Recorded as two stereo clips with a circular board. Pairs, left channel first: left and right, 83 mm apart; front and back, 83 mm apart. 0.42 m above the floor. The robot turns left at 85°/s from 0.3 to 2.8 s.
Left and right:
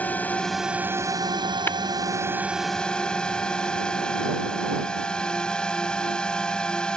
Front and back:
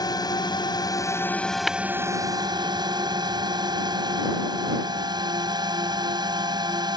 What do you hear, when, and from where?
0.0 s a drone: 20° left; by 7.0 s 170° left
1.7 s tapping: 90° left; by 1.8 s 85° left